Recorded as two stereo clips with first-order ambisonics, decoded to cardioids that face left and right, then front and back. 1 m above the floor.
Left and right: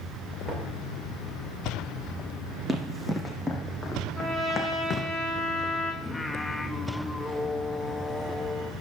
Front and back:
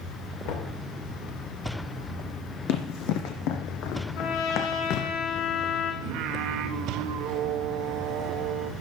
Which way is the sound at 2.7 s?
15° right.